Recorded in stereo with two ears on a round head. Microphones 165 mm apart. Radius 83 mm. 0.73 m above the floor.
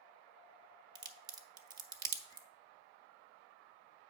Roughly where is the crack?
Right.